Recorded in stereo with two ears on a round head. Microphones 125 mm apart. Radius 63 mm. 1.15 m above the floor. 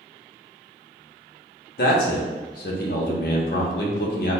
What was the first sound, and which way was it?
A man speaking, 80° left.